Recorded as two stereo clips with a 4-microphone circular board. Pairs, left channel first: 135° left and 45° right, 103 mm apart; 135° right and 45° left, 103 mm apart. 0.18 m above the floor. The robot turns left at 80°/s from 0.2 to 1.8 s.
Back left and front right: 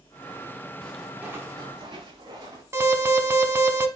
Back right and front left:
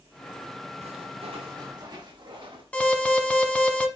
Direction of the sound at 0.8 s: 60° left.